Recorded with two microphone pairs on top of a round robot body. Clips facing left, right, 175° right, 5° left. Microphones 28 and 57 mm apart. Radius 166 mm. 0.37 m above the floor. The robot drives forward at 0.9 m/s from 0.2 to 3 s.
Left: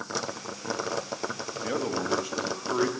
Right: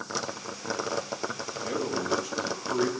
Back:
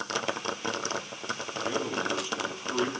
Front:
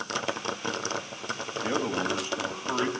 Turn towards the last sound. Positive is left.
turn(degrees=60)